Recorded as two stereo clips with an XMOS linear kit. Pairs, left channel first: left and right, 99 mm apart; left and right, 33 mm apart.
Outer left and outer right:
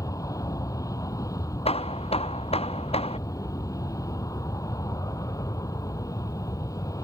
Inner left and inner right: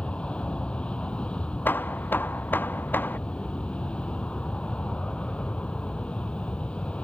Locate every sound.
0.0 s an aircraft: 35° left (ahead or behind)
1.6 s hammering: 85° left